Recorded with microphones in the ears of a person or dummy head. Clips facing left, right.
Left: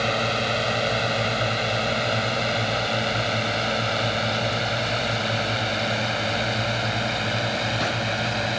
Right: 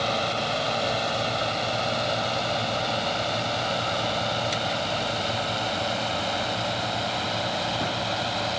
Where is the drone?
25° left (ahead or behind).